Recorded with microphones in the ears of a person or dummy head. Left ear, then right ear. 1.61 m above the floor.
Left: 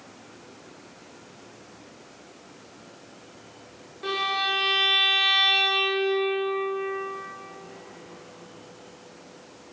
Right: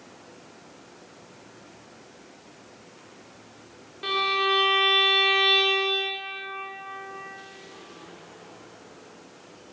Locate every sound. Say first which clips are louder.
4.0 s a violin: right 2 dB; 25° right (ahead or behind), 0.5 m